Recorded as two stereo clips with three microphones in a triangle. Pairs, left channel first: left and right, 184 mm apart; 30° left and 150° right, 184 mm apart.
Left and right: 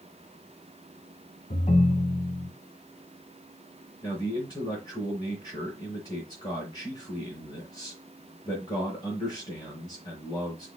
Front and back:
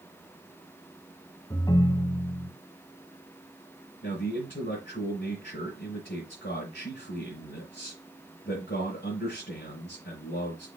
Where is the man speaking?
25° left, 3.5 m.